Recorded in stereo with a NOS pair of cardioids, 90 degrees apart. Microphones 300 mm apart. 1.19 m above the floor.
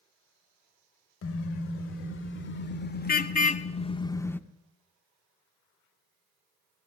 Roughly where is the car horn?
Ahead left.